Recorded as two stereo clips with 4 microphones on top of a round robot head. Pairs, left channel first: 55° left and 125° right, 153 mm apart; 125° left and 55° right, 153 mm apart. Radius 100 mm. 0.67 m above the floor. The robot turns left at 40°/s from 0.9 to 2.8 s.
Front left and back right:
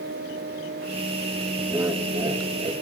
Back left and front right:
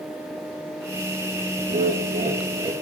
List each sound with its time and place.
1.7 s laughter: 55° right, 0.7 m; by 2.7 s 95° right, 0.7 m